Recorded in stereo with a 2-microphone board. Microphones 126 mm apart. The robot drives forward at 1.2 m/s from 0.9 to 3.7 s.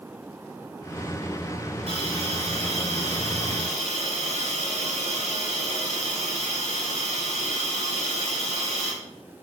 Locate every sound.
1.9 s a hiss: 55° right (ahead or behind), 7.5 m; by 8.9 s 70° right (ahead or behind), 6.5 m